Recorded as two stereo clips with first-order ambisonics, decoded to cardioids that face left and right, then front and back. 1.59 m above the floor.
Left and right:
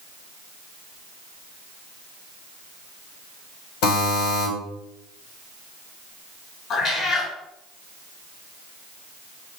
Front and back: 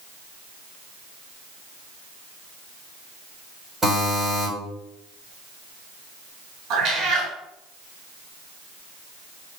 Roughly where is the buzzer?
Left.